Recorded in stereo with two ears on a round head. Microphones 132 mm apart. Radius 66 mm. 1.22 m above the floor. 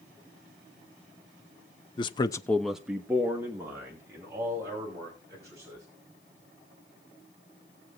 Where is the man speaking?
30° left (ahead or behind), 0.7 m; by 5.8 s 20° right (ahead or behind), 5 m.